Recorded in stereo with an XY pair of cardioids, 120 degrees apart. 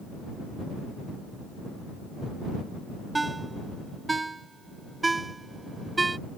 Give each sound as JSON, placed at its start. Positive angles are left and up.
{"t": 3.1, "sound": "a ringtone", "azimuth_deg": -15}